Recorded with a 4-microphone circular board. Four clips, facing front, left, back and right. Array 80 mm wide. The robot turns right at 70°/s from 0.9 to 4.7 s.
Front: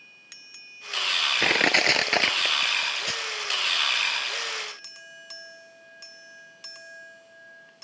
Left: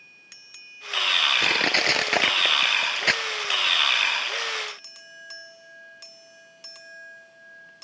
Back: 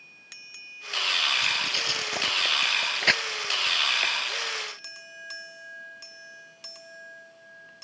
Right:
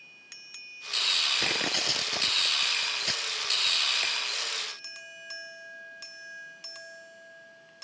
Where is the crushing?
10° left; by 4.1 s 160° right.